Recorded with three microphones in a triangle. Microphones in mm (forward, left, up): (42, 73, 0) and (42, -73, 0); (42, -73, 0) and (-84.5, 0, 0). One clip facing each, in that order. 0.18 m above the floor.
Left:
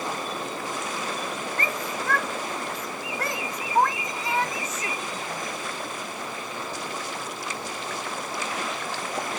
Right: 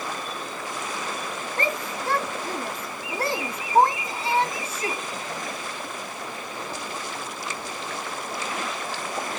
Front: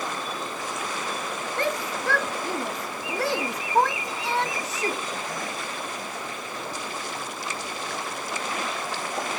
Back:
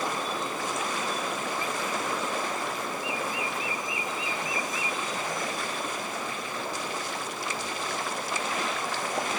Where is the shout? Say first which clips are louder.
Right 5 dB, front 3 dB; 30° right.